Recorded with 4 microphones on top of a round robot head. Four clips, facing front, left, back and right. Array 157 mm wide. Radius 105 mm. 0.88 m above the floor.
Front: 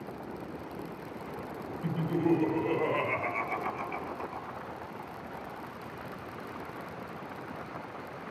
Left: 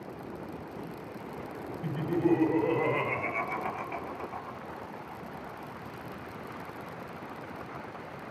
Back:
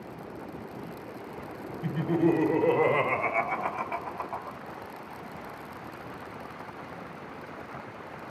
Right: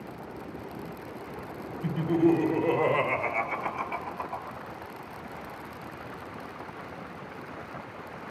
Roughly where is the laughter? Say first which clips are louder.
Right 5 dB, back 4 dB; behind.